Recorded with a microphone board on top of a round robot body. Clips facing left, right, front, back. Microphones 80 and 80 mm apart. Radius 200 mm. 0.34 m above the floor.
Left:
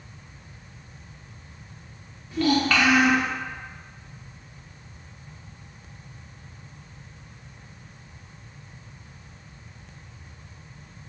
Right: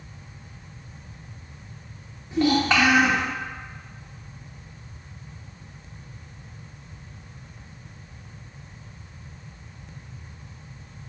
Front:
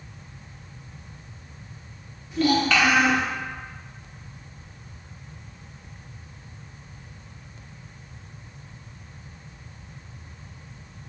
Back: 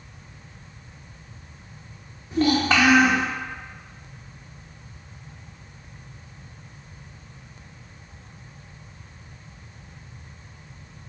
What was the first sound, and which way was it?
A child speaking, 145° right.